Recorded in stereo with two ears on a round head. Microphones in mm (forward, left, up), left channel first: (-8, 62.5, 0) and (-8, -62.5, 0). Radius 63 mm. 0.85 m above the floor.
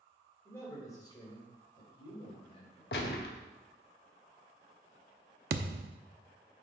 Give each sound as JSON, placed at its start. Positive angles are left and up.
{"t": 0.5, "sound": "a man speaking", "side_deg": 20, "distance_m": 3.0}
{"t": 2.9, "sound": "a gunshot", "side_deg": 85, "distance_m": 1.2}
{"t": 5.5, "sound": "a thud", "side_deg": -75, "distance_m": 0.6}